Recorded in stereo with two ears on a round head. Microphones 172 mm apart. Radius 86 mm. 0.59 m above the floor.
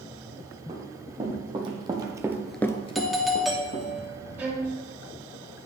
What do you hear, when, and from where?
0.7 s running footsteps: 30° right (ahead or behind), 3 m; by 3.9 s 40° left (ahead or behind), 1.7 m
3.0 s a doorbell: centre (ahead or behind), 1.0 m
4.4 s a violin: 10° right (ahead or behind), 1.5 m